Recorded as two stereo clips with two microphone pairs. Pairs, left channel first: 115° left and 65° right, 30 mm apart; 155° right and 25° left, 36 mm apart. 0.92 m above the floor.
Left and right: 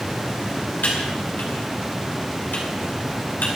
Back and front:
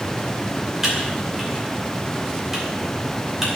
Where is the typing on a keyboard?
105° left, 2.5 m.